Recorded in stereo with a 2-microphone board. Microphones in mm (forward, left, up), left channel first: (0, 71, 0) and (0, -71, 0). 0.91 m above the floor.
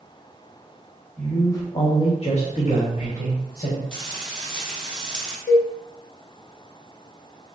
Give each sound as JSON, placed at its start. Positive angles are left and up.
{"t": 1.2, "sound": "a man speaking", "side_deg": 10, "distance_m": 1.3}
{"t": 3.9, "sound": "frying", "side_deg": 5, "distance_m": 0.8}
{"t": 5.5, "sound": "a cowbell", "side_deg": 70, "distance_m": 0.6}